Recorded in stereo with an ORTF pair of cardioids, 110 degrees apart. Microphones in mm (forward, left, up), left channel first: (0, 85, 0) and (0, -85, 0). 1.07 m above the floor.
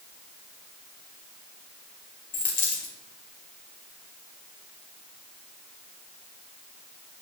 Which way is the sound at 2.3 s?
55° left.